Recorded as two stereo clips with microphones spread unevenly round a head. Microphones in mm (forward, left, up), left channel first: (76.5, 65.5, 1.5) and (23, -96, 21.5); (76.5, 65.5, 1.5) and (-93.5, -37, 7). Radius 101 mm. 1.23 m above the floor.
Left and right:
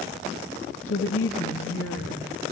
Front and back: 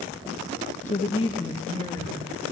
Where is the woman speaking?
85° left, 0.7 m; by 2.5 s 110° left, 1.9 m.